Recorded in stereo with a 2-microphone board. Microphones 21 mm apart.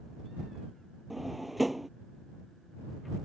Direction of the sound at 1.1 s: 5° right (ahead or behind).